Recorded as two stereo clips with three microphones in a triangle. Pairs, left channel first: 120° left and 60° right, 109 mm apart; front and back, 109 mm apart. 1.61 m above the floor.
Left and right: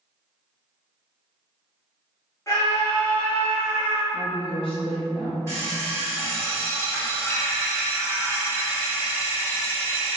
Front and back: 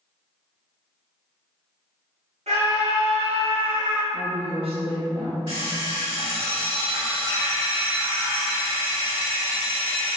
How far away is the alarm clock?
About 2.0 m.